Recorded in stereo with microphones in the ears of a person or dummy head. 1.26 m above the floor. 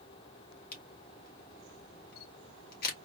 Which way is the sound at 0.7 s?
55° left (ahead or behind).